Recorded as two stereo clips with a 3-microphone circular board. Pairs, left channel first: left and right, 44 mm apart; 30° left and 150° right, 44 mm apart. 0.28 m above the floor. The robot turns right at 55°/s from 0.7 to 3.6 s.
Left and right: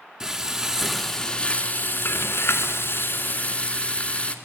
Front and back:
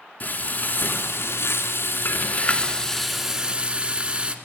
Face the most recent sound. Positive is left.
turn(degrees=145)